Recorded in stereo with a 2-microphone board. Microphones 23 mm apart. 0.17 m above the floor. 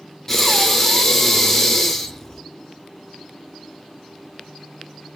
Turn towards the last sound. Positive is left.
turn(degrees=20)  # may be behind; listen again after turning